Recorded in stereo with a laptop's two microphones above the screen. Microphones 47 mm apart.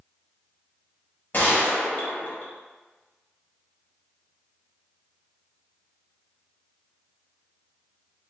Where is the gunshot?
40° left (ahead or behind), 0.8 m.